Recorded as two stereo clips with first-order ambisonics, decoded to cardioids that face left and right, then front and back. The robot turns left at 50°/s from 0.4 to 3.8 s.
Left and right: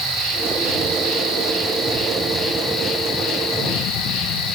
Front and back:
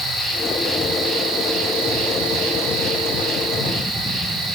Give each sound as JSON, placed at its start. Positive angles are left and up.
{"t": 0.0, "sound": "an insect", "azimuth_deg": -65, "distance_m": 1.7}